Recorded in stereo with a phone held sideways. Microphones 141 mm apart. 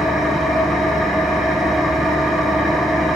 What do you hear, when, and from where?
0.0 s an engine running: centre (ahead or behind), 1.5 m